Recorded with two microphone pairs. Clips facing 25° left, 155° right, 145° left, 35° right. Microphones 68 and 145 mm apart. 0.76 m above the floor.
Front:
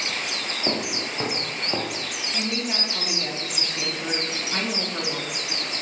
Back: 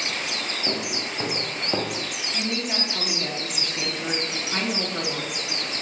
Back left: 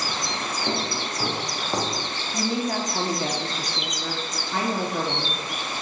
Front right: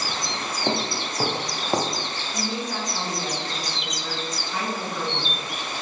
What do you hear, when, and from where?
0.7 s footsteps: 30° right, 1.6 m; by 2.1 s 115° right, 0.9 m
2.3 s a woman speaking: 120° left, 1.0 m